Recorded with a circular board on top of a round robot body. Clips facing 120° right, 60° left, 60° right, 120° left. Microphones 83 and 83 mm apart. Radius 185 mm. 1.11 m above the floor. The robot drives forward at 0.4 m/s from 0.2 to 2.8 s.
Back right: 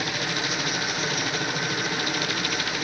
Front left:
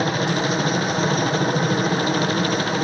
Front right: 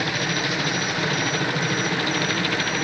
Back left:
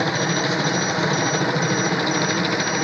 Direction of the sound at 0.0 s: 75° left.